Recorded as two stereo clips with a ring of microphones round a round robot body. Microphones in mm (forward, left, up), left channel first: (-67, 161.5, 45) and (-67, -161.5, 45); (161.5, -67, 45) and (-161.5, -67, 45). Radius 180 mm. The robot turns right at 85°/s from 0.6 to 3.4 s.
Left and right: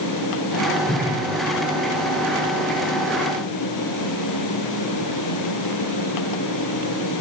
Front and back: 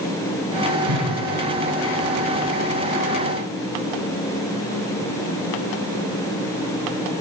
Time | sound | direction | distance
0.9 | a whoosh | 175° left | 3 m